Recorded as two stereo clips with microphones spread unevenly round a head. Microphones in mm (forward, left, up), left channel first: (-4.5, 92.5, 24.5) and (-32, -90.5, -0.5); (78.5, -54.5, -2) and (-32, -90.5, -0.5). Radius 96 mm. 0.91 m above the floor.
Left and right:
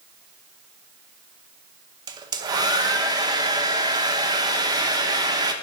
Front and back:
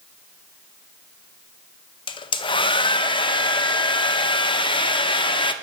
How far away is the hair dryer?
About 0.6 m.